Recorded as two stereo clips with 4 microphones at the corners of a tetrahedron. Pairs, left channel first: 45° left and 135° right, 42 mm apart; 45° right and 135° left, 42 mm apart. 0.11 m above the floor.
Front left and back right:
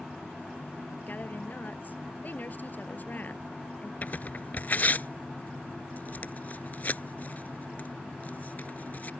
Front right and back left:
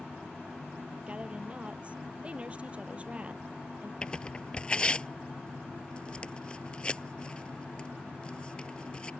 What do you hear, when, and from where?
1.1 s a woman speaking: 80° left
4.0 s tearing paper: 15° left